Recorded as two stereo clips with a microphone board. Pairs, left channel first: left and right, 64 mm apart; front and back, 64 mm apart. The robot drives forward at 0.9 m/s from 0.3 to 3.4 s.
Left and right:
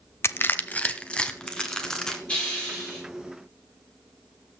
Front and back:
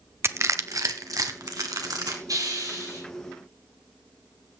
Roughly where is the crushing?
Behind left.